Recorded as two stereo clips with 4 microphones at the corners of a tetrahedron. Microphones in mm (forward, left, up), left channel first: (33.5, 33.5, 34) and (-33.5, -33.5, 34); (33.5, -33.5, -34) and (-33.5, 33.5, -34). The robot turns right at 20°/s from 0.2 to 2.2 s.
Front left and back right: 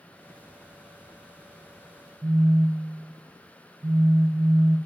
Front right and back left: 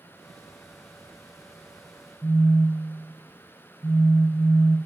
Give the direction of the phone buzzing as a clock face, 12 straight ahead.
3 o'clock.